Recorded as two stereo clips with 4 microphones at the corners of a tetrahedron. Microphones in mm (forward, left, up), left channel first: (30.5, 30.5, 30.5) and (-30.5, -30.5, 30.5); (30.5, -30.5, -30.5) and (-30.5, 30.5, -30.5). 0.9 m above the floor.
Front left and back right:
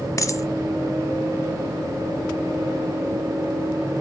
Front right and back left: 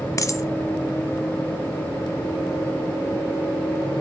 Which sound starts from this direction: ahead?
A dropped coin, at 0.2 s.